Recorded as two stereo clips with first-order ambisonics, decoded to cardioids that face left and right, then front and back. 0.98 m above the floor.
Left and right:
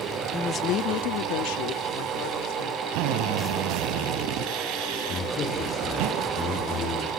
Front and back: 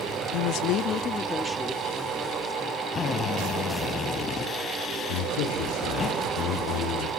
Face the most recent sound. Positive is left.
turn(degrees=25)